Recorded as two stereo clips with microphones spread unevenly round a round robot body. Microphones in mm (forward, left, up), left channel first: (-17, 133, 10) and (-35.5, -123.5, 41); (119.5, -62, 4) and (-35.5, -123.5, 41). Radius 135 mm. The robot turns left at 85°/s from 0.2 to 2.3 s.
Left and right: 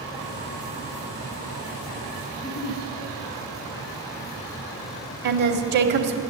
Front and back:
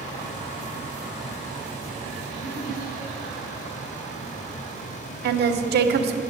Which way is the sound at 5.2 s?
145° right.